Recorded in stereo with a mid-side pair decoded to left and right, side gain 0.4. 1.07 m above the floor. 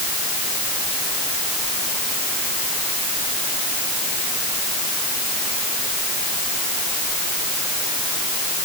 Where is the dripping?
I don't hear dripping.